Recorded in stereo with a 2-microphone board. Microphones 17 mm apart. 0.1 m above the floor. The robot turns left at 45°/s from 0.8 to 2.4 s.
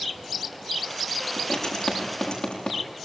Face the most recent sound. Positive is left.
turn(degrees=70)  # may be behind; listen again after turning